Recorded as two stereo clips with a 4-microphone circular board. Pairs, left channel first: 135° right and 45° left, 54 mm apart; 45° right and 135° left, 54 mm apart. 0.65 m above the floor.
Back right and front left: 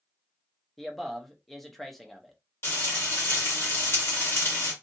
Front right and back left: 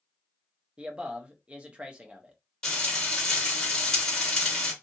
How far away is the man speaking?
About 0.6 m.